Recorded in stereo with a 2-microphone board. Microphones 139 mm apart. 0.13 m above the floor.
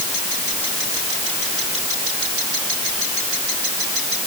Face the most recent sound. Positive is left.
No sound to turn to.